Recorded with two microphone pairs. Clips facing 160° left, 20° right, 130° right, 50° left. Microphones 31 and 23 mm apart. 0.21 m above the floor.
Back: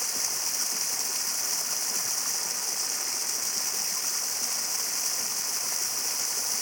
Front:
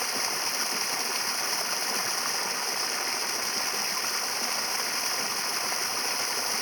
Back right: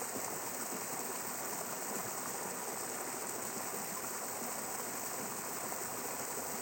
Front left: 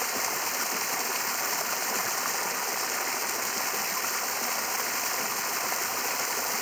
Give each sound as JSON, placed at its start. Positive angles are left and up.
{"t": 0.0, "sound": "running water", "azimuth_deg": 40}